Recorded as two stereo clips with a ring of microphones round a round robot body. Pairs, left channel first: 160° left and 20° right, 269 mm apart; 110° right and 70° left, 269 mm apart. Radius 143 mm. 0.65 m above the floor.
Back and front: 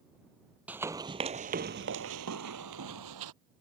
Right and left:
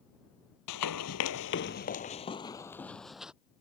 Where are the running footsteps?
105° right; by 3.3 s 20° right.